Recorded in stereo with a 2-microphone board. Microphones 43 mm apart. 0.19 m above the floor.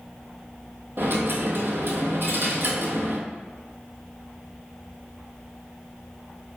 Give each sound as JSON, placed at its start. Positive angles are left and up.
{"t": 1.0, "sound": "a dropped coin", "side_deg": -65, "distance_m": 0.9}